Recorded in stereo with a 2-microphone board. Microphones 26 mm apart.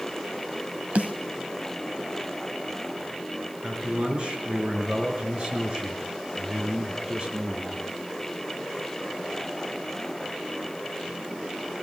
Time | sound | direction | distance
0.9 | a snare drum | 60° right (ahead or behind) | 2 m
3.6 | a man speaking | 35° right (ahead or behind) | 5.5 m